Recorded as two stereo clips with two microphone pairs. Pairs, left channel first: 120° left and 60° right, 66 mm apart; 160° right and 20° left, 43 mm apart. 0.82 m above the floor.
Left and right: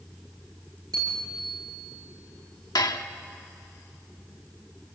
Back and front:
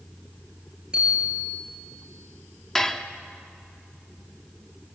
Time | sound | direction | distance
0.9 | a bicycle bell | 50° right | 10 m
2.8 | dishes clattering | 120° left | 1.1 m